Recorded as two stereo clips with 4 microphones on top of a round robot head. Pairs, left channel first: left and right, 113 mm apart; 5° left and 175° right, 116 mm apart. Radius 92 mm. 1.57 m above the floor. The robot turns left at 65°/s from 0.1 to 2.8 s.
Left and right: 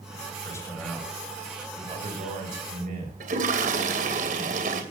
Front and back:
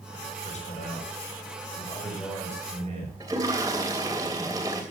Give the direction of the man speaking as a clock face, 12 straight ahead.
11 o'clock.